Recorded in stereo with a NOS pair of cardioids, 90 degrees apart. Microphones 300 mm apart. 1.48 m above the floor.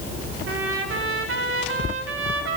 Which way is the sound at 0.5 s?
45° right.